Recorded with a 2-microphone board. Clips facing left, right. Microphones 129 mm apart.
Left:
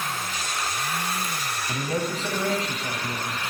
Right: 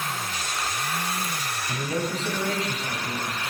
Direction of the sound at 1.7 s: 45° left (ahead or behind).